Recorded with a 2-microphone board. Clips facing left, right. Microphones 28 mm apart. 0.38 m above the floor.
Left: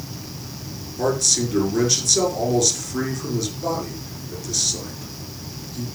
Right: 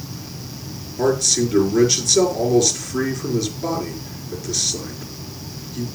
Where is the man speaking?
5° right (ahead or behind), 5 m.